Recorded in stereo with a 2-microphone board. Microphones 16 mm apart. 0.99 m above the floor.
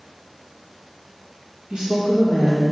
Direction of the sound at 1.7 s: 65° right (ahead or behind).